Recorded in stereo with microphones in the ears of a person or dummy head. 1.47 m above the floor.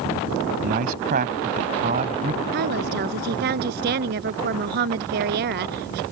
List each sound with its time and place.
0.6 s a man speaking: 50° right (ahead or behind); by 2.4 s 40° right (ahead or behind)
2.5 s a woman speaking: 55° right (ahead or behind)